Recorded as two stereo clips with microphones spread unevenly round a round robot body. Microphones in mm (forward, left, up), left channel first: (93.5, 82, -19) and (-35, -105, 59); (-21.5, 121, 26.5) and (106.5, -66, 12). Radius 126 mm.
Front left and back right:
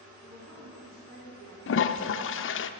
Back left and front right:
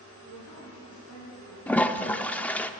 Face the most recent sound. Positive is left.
turn(degrees=40)